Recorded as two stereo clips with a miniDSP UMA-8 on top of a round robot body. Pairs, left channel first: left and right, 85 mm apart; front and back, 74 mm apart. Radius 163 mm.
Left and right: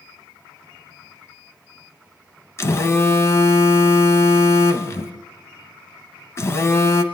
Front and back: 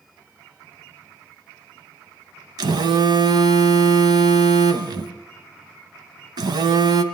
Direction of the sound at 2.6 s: 150° left.